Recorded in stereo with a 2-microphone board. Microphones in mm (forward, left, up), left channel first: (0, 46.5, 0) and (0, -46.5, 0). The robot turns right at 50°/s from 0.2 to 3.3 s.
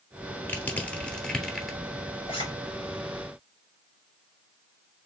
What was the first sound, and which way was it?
Crushing, 20° left (ahead or behind).